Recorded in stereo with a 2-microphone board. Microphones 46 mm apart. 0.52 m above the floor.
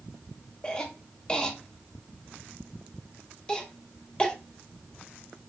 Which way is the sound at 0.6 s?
20° left (ahead or behind).